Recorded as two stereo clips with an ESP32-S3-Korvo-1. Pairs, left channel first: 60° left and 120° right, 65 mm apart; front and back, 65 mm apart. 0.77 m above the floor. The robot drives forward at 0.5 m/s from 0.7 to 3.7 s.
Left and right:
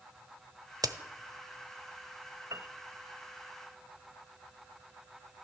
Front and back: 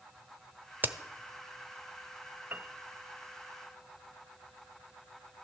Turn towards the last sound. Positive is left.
turn(degrees=-155)